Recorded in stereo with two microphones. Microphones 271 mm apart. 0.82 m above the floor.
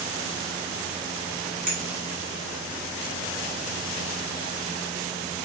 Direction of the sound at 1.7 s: 30° right (ahead or behind).